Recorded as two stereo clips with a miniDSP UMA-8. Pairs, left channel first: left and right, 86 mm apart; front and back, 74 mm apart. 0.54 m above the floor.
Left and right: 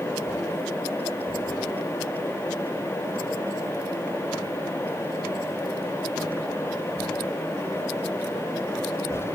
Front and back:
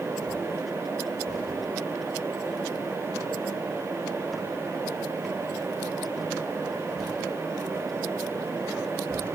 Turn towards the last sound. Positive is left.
No sound to turn to.